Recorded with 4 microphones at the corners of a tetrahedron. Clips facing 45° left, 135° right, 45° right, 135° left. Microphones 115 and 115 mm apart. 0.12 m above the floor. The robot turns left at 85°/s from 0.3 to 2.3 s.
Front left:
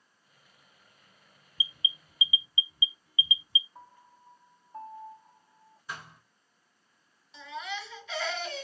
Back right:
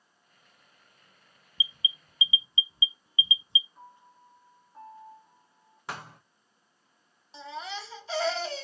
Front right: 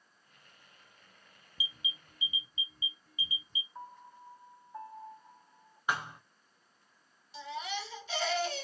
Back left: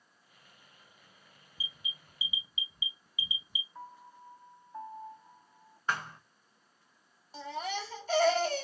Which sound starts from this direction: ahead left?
A piano, at 3.8 s.